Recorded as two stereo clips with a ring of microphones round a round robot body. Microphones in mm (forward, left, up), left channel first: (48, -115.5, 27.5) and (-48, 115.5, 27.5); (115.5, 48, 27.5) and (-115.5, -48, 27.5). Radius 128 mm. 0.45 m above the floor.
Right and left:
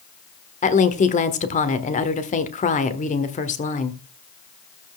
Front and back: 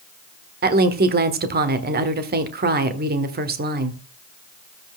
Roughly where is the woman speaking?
Behind right.